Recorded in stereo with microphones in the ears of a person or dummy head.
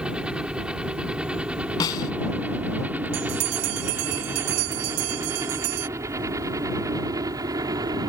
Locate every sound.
0.0 s a helicopter: centre (ahead or behind); by 8.1 s 20° right (ahead or behind)
1.8 s a snare drum: 30° left (ahead or behind)
3.1 s a bell: 85° right